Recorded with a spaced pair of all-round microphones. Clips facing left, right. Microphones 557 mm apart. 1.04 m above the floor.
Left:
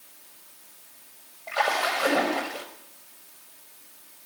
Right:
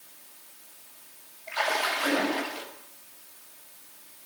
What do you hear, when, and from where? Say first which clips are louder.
1.5 s a splash: left 3 dB; 85° left, 6 m